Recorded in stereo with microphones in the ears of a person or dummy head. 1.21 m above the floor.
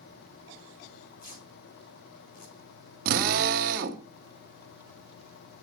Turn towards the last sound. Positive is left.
turn(degrees=-50)  # may be behind; listen again after turning